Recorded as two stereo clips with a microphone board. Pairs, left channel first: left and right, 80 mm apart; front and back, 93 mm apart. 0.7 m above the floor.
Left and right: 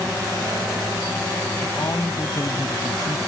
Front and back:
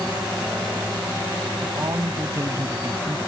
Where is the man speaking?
135° left; by 3.2 s 115° left.